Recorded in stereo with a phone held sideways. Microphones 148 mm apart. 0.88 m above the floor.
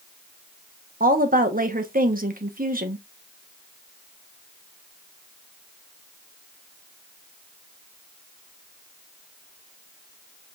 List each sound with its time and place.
1.0 s a woman speaking: 70° right (ahead or behind), 0.9 m